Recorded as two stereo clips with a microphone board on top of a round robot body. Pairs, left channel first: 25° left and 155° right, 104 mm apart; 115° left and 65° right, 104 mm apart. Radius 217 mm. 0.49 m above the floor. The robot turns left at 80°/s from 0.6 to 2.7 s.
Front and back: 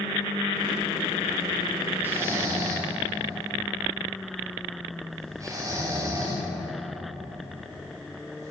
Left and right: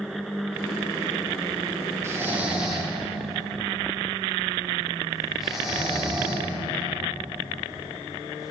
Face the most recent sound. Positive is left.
turn(degrees=-155)